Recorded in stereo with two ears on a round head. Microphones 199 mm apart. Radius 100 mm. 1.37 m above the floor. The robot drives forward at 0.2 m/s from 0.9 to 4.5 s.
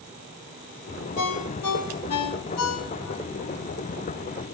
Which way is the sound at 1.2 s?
80° left.